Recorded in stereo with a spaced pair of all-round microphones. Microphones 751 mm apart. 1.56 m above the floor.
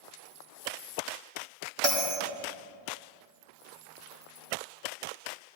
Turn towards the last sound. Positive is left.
turn(degrees=-30)  # may be behind; listen again after turning